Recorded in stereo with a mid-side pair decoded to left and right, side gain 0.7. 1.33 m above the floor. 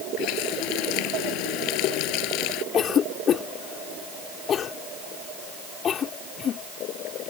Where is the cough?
40° left.